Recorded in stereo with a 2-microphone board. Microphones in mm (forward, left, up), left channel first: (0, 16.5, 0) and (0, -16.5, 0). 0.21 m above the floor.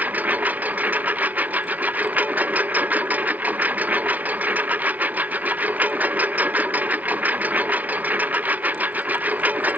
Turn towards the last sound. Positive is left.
turn(degrees=-65)  # may be behind; listen again after turning